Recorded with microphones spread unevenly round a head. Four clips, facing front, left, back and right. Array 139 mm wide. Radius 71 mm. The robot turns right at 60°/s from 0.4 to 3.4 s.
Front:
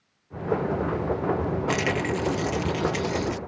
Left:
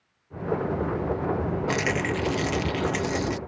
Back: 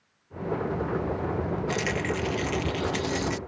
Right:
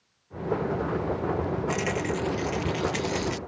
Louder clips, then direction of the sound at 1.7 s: Left 2 dB, front 3 dB; 45° left.